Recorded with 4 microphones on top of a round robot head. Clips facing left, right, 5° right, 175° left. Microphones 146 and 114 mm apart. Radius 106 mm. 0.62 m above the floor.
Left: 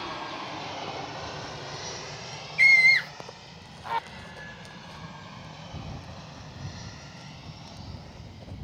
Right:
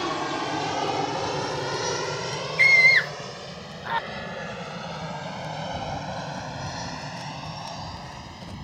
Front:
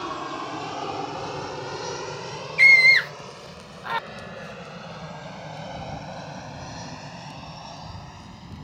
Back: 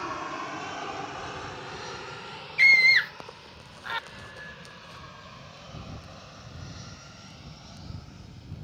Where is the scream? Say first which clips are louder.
Right 1 dB, front 4 dB; 15° left.